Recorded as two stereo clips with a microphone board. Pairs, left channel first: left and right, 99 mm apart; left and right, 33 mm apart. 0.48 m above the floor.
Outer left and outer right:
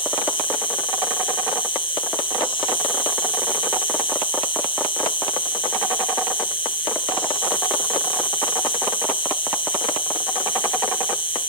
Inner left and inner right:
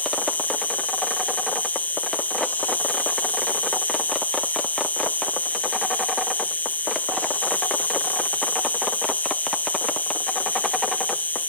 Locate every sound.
0.0 s an insect: 60° left (ahead or behind), 6 m